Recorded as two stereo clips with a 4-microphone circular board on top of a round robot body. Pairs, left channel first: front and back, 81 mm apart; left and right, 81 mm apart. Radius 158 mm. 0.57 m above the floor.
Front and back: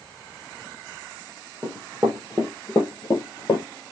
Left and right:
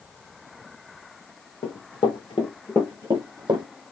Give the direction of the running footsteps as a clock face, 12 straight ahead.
8 o'clock.